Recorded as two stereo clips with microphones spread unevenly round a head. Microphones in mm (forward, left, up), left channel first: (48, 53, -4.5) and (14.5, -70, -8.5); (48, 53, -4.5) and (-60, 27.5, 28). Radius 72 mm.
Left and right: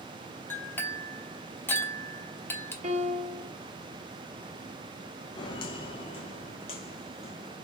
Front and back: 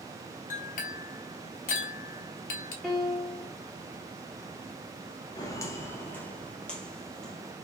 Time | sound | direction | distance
0.5 | a clink | straight ahead | 1.0 m
2.8 | a piano | 70° right | 1.5 m
5.3 | footsteps | 75° left | 1.1 m